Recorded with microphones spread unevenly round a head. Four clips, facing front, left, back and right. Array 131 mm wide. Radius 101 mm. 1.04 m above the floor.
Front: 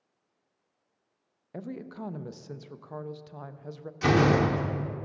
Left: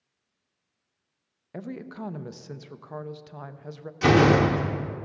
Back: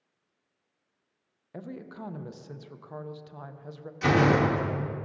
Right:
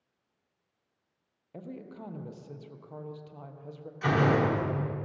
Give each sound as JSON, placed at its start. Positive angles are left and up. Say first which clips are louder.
{"t": 1.5, "sound": "a woman speaking", "louder": "left 6 dB, front 2 dB", "azimuth_deg": 125, "distance_m": 0.6}
{"t": 4.0, "sound": "a door slam", "louder": "left 7 dB, even", "azimuth_deg": 90, "distance_m": 0.8}